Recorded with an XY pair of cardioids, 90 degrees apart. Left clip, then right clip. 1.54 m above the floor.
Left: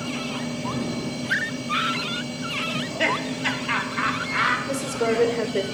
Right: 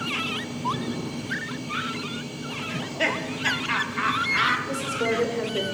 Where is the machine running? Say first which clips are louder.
Right 2 dB; 70° left, 2.5 m.